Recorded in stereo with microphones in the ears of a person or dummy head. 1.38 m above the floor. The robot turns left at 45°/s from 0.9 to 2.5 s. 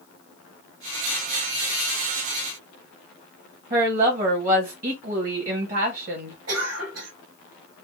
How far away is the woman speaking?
About 1.0 m.